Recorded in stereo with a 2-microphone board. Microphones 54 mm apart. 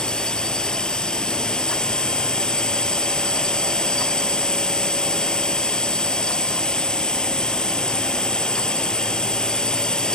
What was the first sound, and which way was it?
A drone, 15° left (ahead or behind).